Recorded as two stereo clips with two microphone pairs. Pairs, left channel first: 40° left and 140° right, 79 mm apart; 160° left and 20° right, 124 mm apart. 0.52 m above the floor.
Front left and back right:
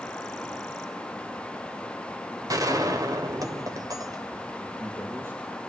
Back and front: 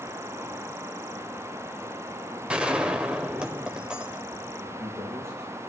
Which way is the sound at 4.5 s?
85° right.